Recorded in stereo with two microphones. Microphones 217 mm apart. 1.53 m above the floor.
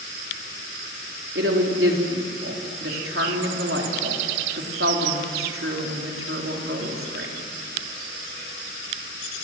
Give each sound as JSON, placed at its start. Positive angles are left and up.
{"t": 1.4, "sound": "a woman speaking", "side_deg": -85, "distance_m": 4.0}